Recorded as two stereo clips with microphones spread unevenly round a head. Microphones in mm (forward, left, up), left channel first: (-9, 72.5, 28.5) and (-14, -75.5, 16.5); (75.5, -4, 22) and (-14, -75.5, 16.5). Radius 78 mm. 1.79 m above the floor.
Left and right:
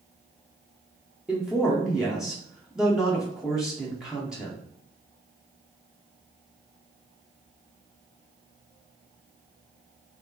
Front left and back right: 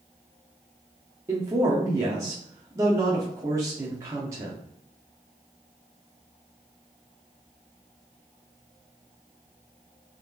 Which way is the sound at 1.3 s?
175° left.